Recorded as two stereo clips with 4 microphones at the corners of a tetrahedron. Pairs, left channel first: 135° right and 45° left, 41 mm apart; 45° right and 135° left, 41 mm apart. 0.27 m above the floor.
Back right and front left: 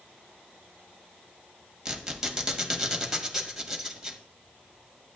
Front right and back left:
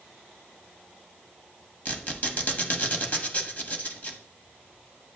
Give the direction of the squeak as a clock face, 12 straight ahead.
1 o'clock.